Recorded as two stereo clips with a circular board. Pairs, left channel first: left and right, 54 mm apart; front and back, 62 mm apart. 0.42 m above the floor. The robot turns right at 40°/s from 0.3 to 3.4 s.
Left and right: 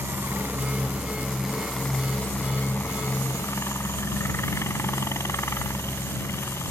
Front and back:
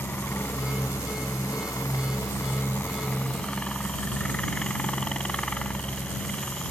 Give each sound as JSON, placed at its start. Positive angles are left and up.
{"t": 0.0, "sound": "a helicopter", "azimuth_deg": -50}